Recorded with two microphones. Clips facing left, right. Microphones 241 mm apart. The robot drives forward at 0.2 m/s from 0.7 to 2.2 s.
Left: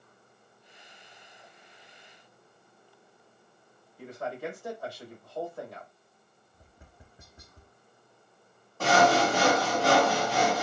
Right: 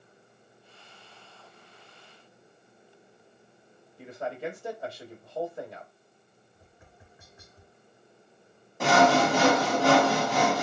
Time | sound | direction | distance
4.0 | a man speaking | 20° right (ahead or behind) | 0.9 m
6.5 | tapping | 40° left (ahead or behind) | 0.5 m
8.8 | sawing | 20° right (ahead or behind) | 1.3 m